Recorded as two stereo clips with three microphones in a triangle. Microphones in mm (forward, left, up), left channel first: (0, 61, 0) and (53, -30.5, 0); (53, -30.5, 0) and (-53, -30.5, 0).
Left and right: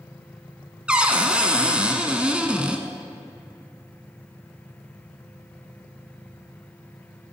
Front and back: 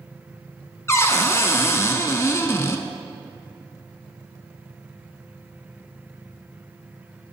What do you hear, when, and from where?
0.9 s a cupboard door: 5° left, 0.6 m